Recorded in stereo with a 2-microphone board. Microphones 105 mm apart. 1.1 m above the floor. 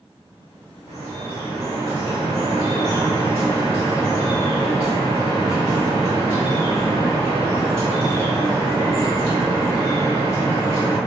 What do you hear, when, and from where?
0.9 s dripping: 70° right (ahead or behind), 1.8 m